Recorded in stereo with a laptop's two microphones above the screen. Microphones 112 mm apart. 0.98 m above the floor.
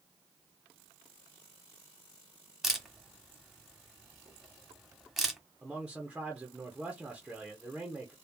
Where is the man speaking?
5° right (ahead or behind), 0.8 m.